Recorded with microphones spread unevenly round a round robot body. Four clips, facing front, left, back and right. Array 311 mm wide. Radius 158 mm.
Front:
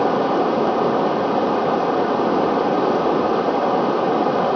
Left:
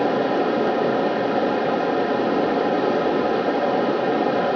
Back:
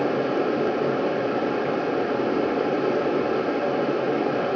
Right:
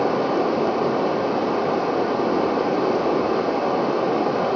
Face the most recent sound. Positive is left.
turn(degrees=10)